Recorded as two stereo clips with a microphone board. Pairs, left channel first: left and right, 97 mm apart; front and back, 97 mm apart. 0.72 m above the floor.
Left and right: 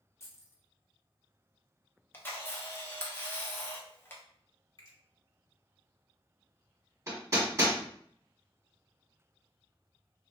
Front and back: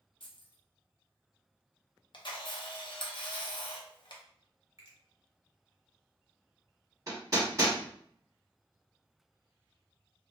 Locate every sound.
0.2 s keys jangling: 25° left, 0.7 m
2.1 s a camera shutter: 25° left, 0.6 m
4.8 s a finger snap: 130° left, 1.4 m
7.1 s hammering: 135° right, 1.3 m